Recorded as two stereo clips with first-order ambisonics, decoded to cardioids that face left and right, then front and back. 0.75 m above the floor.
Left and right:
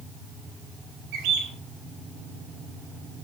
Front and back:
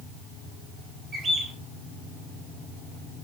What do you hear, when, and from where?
1.1 s a bird: 105° right, 4 m